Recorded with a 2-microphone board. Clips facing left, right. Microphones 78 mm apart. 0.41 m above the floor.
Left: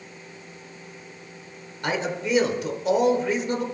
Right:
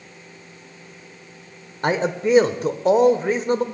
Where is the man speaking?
40° right (ahead or behind), 1.2 m.